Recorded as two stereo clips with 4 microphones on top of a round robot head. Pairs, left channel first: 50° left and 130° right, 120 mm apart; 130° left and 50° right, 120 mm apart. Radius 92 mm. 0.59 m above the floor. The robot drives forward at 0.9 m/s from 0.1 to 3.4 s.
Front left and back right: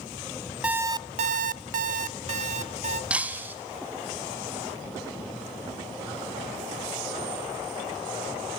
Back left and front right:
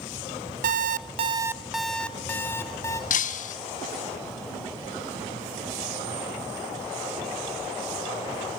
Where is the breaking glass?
150° left, 1.4 m; by 3.5 s 155° left, 1.6 m.